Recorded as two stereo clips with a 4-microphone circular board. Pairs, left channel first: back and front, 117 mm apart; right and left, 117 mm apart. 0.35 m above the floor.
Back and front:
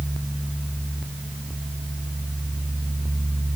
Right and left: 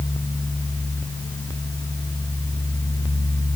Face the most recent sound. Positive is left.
No sound to turn to.